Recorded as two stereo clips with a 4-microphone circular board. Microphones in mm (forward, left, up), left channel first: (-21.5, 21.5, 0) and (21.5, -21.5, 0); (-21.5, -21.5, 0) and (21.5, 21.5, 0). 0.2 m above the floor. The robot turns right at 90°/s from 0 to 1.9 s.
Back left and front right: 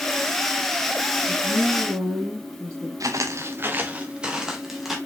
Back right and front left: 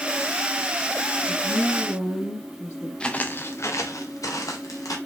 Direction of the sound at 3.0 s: 60° right.